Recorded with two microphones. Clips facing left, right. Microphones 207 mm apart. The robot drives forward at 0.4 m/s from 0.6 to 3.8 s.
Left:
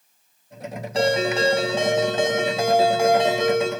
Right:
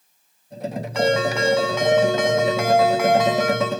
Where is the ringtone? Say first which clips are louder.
Even; 35° left (ahead or behind), 8.5 m; by 3.7 s 30° left (ahead or behind), 9.5 m.